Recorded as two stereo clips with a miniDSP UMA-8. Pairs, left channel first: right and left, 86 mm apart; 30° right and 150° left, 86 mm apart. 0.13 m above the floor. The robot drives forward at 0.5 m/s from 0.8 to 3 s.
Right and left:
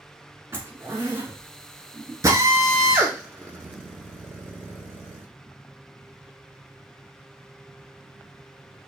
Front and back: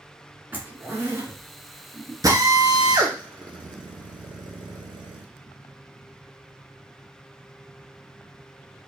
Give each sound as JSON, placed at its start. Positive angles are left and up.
{"t": 0.5, "sound": "a zipper", "azimuth_deg": 105, "distance_m": 1.3}
{"t": 2.2, "sound": "a drill", "azimuth_deg": 125, "distance_m": 0.9}